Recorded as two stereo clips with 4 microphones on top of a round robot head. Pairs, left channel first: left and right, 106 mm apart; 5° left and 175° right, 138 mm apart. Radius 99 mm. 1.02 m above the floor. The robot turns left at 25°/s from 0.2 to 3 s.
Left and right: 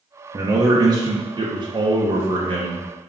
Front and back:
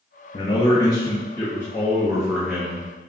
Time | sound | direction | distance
0.3 | a man speaking | 40° right | 0.6 m